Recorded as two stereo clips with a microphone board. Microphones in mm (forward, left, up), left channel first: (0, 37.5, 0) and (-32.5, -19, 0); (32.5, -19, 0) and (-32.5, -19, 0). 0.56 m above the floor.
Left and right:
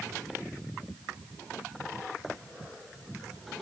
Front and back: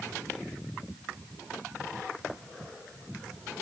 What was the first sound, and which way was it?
Only background noise.